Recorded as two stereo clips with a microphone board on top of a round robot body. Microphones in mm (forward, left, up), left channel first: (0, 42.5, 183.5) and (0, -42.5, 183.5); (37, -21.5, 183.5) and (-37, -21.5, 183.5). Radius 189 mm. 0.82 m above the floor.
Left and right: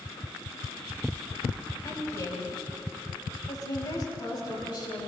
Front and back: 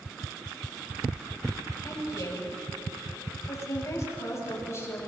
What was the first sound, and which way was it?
A woman speaking, 35° left.